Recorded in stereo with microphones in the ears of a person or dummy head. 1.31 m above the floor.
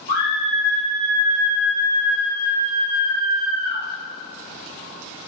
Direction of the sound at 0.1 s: 50° right (ahead or behind).